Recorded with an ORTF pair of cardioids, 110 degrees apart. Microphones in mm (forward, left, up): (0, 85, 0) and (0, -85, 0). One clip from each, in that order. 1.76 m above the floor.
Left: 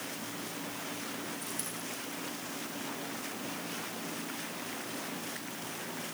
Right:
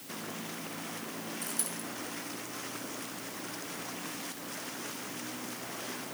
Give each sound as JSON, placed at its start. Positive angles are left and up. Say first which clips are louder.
{"t": 1.4, "sound": "a dropped coin", "louder": "right 1 dB", "azimuth_deg": -30, "distance_m": 5.0}